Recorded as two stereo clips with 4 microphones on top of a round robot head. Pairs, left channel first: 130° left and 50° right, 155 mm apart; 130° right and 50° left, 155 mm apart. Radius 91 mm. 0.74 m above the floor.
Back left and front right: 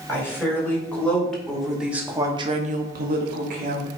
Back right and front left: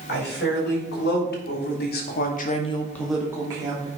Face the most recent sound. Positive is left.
turn(degrees=-10)